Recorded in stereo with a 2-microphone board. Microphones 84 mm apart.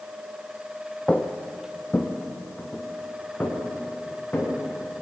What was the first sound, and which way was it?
Footsteps, 15° left (ahead or behind).